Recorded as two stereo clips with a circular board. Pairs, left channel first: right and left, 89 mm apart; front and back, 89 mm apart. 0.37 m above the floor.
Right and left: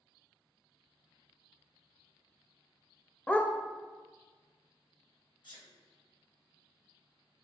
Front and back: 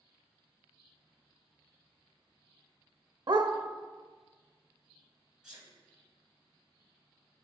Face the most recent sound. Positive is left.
turn(degrees=-100)